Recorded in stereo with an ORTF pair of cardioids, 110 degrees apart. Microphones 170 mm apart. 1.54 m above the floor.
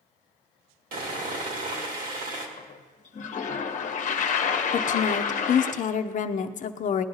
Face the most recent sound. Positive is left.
turn(degrees=45)